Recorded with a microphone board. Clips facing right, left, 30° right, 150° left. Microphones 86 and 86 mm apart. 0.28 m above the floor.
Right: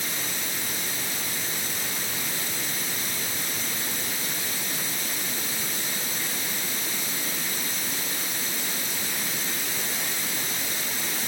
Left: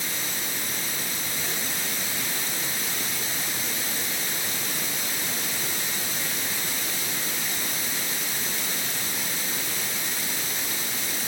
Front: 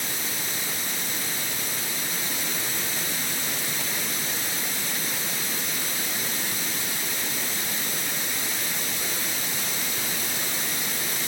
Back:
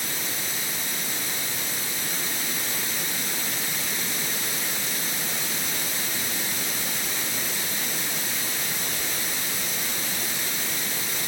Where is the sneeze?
I don't hear a sneeze.